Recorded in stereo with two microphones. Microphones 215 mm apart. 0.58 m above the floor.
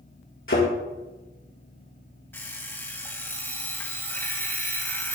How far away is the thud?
About 5 m.